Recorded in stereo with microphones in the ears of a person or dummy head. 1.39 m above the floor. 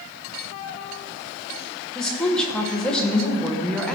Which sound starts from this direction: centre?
A woman speaking, at 1.9 s.